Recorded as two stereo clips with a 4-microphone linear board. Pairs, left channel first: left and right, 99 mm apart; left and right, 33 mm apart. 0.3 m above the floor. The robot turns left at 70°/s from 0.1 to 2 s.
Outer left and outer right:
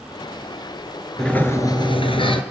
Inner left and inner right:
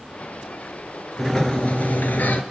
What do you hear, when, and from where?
1.2 s a sliding door: 175° left, 2.0 m; by 2.4 s 120° left, 2.0 m